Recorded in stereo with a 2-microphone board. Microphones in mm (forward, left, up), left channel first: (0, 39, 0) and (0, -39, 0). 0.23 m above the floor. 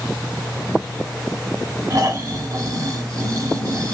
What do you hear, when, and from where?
1.9 s snoring: 40° right (ahead or behind), 1.1 m